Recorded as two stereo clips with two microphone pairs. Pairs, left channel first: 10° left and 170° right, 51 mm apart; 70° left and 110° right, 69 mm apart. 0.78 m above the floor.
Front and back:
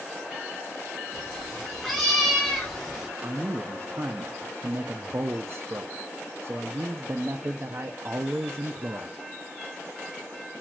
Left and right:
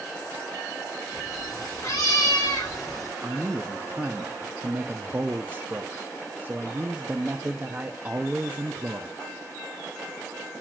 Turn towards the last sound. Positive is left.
turn(degrees=-160)